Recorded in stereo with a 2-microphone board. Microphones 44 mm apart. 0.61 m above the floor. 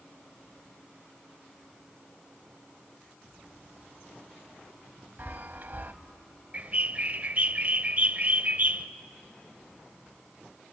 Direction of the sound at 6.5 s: 40° right (ahead or behind).